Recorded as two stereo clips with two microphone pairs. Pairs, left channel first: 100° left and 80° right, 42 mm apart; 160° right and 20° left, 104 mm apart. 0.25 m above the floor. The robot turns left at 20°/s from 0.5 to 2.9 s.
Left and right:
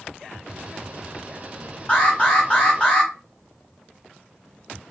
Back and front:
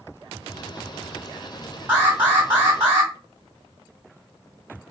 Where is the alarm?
80° left, 1.7 m; by 3.1 s 60° left, 1.7 m.